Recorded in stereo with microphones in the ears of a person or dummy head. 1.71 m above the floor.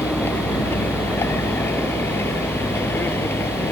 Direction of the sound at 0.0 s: 15° left (ahead or behind).